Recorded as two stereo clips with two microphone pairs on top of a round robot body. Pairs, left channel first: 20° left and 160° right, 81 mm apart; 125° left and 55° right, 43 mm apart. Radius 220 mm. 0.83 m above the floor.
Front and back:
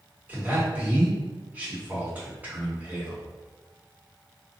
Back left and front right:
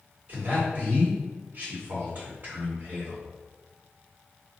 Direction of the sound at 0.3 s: 95° right.